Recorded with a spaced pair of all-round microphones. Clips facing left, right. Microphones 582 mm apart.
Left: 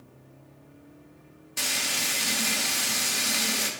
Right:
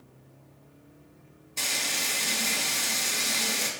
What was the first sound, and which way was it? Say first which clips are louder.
Frying: left 1 dB; 40° left (ahead or behind).